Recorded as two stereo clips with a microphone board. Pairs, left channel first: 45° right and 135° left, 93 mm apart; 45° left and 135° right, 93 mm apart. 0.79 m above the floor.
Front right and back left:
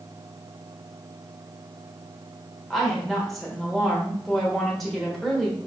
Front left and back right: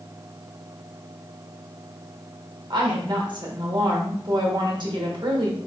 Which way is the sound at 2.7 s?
135° right.